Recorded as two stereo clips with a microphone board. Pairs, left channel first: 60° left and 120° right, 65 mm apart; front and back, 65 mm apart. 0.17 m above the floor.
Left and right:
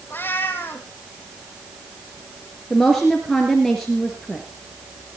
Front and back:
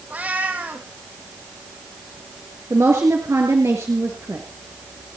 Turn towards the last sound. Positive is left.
turn(degrees=145)